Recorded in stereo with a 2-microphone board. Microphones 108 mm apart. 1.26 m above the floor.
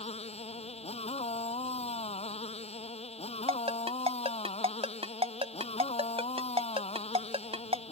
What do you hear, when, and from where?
0.0 s a motorcycle: 70° left (ahead or behind)
3.5 s a ringtone: 65° right (ahead or behind)